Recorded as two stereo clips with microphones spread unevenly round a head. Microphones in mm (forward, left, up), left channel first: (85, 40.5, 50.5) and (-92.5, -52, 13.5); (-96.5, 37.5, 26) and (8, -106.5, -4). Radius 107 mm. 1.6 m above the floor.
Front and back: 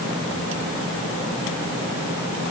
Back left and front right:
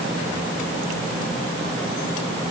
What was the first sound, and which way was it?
Only background noise.